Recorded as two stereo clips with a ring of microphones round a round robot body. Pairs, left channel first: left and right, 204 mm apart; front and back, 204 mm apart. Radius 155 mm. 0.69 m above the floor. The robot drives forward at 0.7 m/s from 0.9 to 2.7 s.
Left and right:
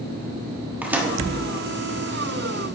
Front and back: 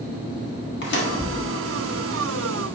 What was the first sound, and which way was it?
A microwave, 10° right.